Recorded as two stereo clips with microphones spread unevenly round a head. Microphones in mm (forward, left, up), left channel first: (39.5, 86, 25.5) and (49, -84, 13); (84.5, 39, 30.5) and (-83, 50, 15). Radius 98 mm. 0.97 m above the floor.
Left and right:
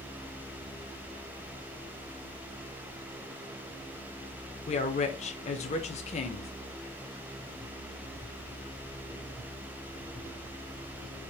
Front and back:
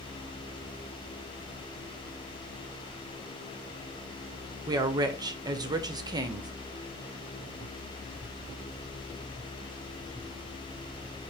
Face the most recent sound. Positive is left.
turn(degrees=130)